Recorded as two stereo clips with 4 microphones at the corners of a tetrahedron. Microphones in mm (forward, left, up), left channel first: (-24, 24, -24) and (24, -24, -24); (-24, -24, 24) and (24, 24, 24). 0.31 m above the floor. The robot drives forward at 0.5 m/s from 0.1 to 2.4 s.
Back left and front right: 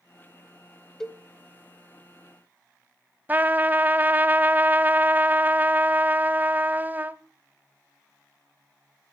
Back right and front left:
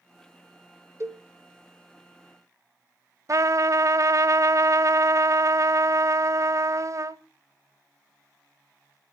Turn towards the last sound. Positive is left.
turn(degrees=15)